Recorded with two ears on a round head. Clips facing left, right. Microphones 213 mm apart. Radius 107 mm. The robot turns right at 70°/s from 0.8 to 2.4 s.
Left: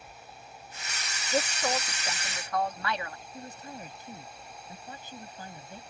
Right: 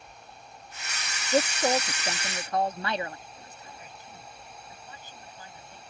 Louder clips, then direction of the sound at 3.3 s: Left 6 dB; 35° left (ahead or behind).